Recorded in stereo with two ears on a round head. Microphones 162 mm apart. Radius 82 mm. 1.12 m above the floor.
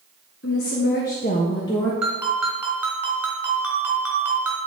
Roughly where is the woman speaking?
Left.